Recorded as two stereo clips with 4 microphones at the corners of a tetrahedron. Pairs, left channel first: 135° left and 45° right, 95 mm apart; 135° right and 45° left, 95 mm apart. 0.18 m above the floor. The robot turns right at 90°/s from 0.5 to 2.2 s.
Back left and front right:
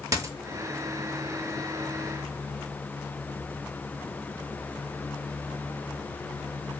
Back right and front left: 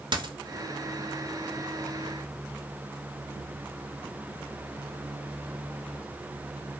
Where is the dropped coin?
10° left, 0.5 m.